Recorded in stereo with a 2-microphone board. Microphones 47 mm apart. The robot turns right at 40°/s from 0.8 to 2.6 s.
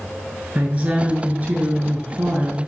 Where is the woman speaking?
120° right, 1.2 m; by 2.6 s 45° right, 1.2 m.